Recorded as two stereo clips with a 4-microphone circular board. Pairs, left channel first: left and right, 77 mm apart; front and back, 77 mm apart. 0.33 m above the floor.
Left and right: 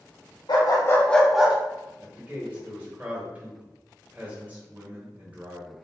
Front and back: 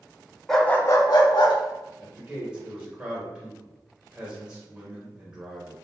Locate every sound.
0.5 s a dog barking: 85° left, 0.6 m; by 1.6 s 15° right, 0.8 m
2.0 s a man speaking: 120° right, 0.9 m